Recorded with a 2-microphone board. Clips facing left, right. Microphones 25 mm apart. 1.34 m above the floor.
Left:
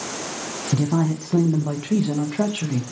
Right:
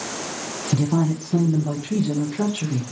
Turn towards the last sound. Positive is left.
turn(degrees=75)  # may be behind; listen again after turning